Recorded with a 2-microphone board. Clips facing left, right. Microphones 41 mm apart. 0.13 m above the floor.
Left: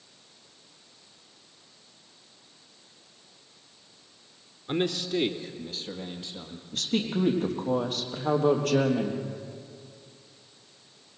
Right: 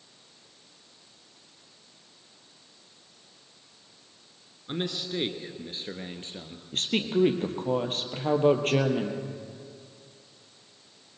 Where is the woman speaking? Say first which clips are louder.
Right 2 dB; 40° right (ahead or behind), 3.5 m.